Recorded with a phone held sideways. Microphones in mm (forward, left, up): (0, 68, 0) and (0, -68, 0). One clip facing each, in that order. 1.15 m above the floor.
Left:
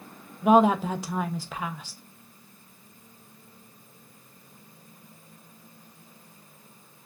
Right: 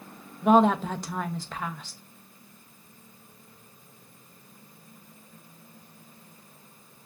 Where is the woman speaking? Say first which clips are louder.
Left 1 dB; 5° left (ahead or behind), 0.6 m.